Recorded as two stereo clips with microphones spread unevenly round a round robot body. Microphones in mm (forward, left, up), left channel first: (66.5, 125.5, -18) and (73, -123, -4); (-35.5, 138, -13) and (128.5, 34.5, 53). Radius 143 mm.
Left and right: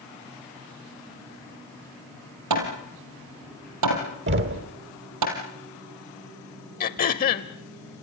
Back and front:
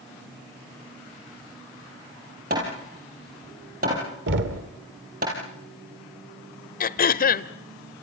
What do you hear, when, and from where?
2.5 s hammering: 90° right, 4 m
4.3 s knocking: 65° right, 1.6 m
6.8 s throat clearing: 145° left, 0.7 m